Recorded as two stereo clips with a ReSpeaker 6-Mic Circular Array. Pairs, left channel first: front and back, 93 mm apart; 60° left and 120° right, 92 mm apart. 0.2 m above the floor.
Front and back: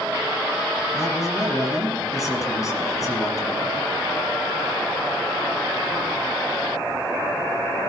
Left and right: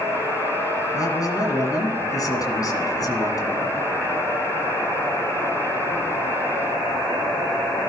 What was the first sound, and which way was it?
A man speaking, 35° left.